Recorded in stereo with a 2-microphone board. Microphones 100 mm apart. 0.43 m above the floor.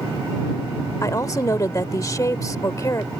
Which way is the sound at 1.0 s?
35° left (ahead or behind).